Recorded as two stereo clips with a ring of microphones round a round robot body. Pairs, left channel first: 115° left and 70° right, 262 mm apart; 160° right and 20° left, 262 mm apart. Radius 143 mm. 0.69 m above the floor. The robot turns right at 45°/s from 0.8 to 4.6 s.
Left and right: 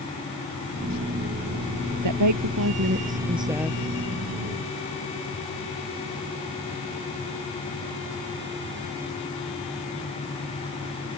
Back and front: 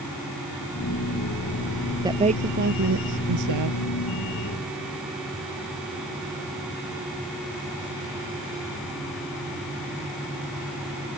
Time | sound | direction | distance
2.0 | a woman speaking | 55° right | ?